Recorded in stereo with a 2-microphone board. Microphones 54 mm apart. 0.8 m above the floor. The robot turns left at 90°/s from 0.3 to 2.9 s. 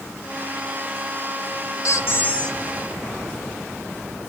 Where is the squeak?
80° left, 1.3 m; by 2.6 s 10° left, 1.3 m.